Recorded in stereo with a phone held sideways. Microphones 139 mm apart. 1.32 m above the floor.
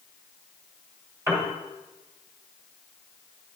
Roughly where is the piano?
Centre.